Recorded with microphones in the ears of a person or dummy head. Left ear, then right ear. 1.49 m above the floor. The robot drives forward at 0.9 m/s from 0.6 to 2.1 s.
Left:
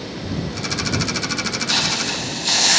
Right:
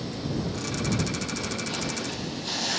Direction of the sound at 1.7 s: 55° left (ahead or behind).